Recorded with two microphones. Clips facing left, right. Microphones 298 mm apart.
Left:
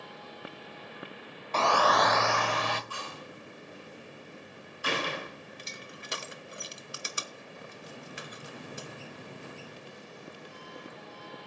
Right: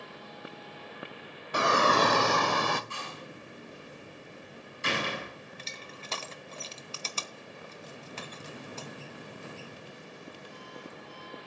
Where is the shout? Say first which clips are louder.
Right 1 dB; 15° right (ahead or behind), 0.6 m; by 2.8 s 55° right (ahead or behind), 1.1 m.